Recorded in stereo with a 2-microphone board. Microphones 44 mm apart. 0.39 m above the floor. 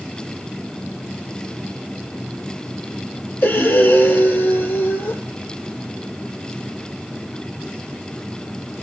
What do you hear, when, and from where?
3.4 s breathing: 55° left (ahead or behind), 6 m